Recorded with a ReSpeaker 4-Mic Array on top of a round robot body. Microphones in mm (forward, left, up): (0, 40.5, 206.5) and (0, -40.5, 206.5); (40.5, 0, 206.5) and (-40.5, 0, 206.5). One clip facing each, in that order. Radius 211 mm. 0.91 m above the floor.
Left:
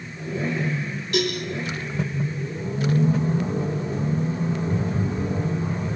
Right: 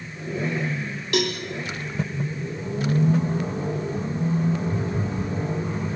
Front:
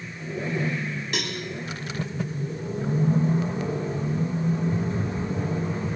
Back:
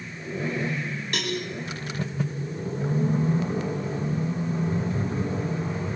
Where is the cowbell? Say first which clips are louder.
Even, back 3 dB; 90° right, 1.0 m.